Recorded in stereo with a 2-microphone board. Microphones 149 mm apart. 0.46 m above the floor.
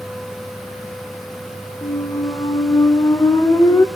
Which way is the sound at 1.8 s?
20° left (ahead or behind).